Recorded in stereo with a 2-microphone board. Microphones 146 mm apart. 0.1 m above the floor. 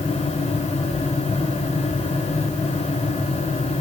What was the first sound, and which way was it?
Only background noise.